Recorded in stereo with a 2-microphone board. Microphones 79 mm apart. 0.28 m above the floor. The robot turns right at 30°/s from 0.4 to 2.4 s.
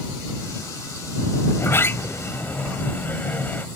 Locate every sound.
1.5 s a sliding door: 35° left (ahead or behind); by 3.7 s 25° left (ahead or behind)